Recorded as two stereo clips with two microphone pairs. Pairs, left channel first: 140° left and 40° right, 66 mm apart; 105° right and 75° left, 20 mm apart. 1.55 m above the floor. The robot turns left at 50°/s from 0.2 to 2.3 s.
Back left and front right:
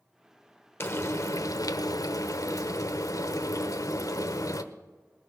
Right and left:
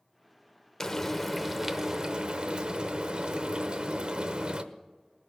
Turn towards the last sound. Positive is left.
turn(degrees=115)